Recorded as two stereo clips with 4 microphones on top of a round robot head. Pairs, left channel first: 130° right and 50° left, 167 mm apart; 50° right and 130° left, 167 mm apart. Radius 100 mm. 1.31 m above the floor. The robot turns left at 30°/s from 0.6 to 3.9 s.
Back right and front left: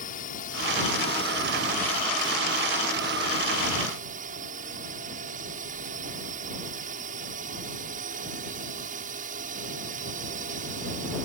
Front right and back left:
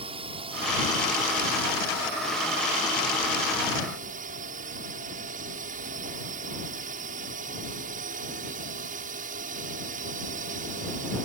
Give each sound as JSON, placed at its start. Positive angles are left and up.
{"t": 0.0, "sound": "a drone", "azimuth_deg": -170}